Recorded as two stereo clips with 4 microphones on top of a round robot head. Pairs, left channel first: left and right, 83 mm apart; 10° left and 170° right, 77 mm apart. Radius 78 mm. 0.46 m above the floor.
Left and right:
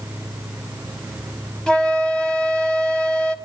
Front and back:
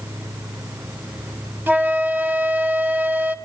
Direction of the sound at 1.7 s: 160° left.